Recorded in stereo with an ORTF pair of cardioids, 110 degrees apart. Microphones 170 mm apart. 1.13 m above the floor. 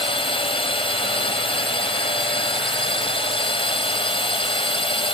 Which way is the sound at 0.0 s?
35° left.